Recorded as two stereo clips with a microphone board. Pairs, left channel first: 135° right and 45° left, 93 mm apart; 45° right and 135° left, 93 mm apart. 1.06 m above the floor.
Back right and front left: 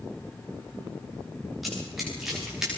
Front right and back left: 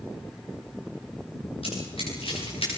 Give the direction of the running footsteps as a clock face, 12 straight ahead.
1 o'clock.